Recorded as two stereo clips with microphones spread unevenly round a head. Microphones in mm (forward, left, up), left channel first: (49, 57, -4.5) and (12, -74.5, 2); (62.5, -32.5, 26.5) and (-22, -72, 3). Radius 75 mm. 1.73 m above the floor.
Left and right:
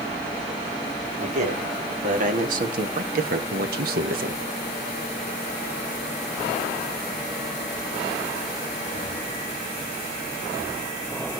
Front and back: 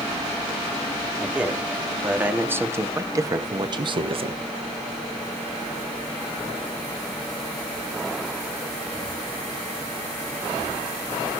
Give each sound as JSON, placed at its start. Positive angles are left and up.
{"t": 1.2, "sound": "a man speaking", "azimuth_deg": -70, "distance_m": 4.0}